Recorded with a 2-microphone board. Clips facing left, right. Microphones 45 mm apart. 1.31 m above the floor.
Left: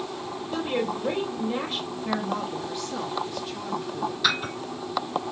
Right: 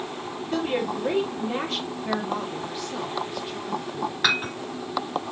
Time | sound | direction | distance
0.5 | a woman speaking | 70° right (ahead or behind) | 3 m
1.9 | a woman speaking | 5° right (ahead or behind) | 1.0 m
4.2 | dishes clattering | 55° right (ahead or behind) | 5.5 m